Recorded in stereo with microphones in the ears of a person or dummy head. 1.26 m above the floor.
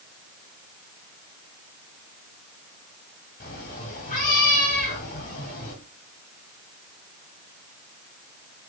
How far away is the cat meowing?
About 1.4 m.